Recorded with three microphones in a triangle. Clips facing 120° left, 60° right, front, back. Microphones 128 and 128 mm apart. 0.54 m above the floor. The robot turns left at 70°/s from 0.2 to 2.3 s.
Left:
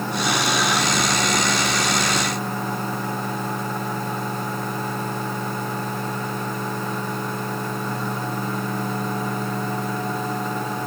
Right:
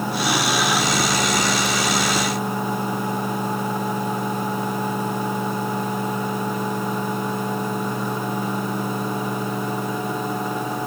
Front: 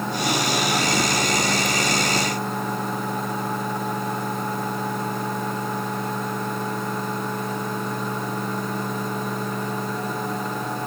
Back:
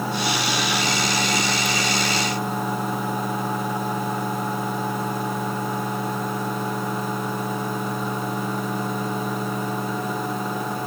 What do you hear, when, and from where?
Only background noise.